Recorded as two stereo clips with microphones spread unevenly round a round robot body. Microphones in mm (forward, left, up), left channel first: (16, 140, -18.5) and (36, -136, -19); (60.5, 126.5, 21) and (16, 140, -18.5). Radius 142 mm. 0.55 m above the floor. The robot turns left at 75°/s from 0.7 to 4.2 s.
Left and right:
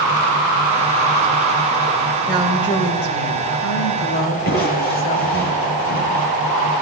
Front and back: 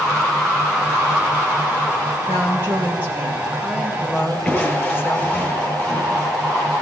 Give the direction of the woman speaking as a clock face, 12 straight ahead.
6 o'clock.